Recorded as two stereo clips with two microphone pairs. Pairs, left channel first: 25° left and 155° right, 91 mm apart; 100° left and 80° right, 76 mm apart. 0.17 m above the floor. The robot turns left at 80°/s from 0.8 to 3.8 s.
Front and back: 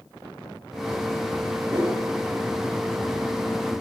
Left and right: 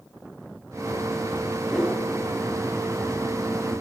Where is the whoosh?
175° right, 7.5 m; by 2.0 s 165° left, 7.5 m.